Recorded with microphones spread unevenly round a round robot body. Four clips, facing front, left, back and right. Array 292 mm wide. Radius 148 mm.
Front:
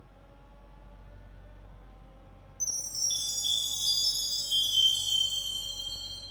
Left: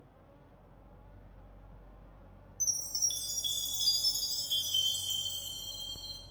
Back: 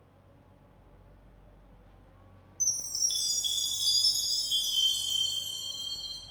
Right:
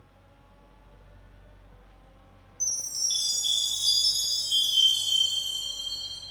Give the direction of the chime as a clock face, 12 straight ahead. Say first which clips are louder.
Right 3 dB, back 1 dB; 8 o'clock.